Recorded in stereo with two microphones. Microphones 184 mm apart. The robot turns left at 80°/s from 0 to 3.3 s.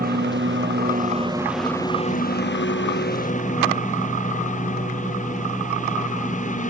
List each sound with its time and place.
0.0 s a lawn mower: 55° right; by 6.7 s 45° left